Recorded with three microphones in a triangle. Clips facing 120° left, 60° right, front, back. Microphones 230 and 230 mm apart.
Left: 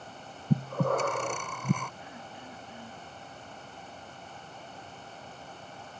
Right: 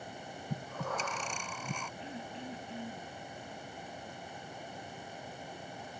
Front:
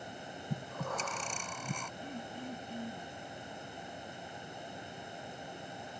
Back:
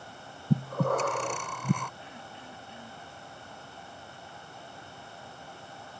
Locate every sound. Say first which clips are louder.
0.5 s breathing: left 12 dB, back 13 dB; 155° left
2.0 s throat clearing: right 3 dB, front 5 dB; 10° right